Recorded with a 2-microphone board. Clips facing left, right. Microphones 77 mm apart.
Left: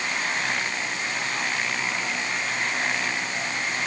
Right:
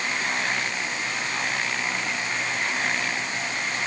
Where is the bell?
No bell in this recording.